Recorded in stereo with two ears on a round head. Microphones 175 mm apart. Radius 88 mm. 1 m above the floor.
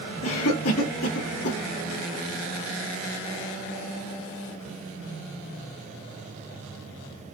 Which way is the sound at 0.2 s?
85° left.